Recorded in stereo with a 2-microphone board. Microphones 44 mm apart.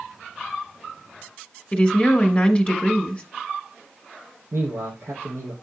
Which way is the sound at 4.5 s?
75° right (ahead or behind).